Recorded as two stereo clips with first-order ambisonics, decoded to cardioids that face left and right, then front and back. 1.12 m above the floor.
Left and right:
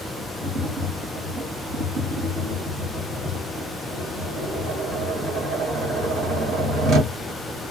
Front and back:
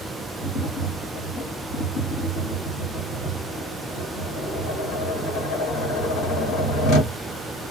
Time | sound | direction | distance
0.4 | tapping | 35° right | 1.9 m